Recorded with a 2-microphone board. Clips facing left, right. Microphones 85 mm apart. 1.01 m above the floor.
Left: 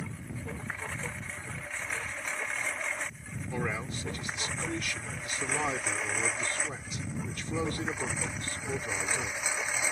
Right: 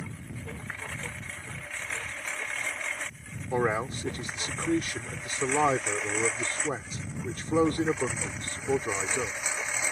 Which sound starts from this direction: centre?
A lawn mower, at 0.0 s.